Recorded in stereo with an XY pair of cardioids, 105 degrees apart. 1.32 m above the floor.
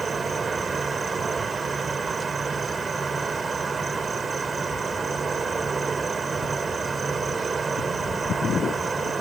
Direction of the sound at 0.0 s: 30° right.